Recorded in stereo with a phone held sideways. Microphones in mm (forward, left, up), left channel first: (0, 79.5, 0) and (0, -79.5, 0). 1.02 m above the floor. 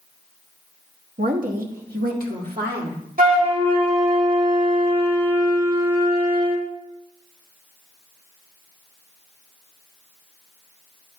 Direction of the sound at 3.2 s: 65° right (ahead or behind).